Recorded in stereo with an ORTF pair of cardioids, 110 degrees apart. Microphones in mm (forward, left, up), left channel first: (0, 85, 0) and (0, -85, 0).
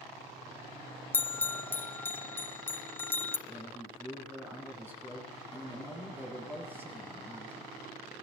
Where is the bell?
15° left, 0.6 m.